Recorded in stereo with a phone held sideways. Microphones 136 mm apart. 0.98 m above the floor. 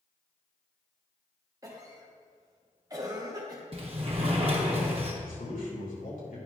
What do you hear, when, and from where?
1.6 s a cough: 25° right (ahead or behind), 0.9 m
3.7 s a sliding door: 45° right (ahead or behind), 1.5 m
5.2 s a man speaking: 85° left, 3 m